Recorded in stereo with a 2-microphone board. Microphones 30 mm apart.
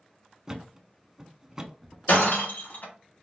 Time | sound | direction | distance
0.5 | a thud | 15° right (ahead or behind) | 0.6 m
2.1 | breaking glass | 70° left (ahead or behind) | 2.5 m